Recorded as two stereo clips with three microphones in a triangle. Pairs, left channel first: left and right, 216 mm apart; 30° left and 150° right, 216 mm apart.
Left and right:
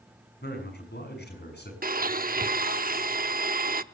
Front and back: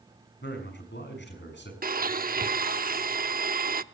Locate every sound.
0.4 s a man speaking: 55° left, 6 m
1.8 s a blender: 120° right, 0.7 m